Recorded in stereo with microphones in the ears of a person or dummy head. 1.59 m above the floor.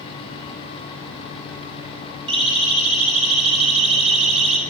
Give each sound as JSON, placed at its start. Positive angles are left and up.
{"t": 2.3, "sound": "a siren", "side_deg": -35, "distance_m": 9.0}